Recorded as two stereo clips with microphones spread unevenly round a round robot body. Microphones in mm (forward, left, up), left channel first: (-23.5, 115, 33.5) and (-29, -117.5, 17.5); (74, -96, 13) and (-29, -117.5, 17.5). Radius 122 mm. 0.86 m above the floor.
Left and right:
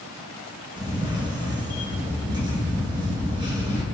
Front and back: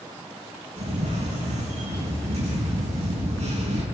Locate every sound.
0.8 s a camera shutter: 165° right, 4.5 m